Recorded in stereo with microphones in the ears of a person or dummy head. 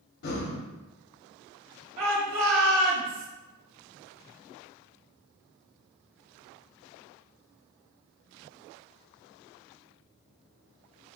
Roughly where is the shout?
Right.